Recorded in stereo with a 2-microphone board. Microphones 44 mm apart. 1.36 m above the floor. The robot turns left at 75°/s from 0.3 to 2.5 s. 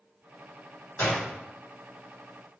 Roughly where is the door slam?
Left.